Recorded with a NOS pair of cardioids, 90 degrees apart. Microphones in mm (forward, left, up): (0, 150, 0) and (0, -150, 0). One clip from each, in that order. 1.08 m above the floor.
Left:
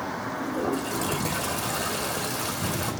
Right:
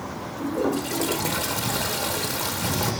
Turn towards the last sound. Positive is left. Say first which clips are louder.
# right 5 dB
turn(degrees=-35)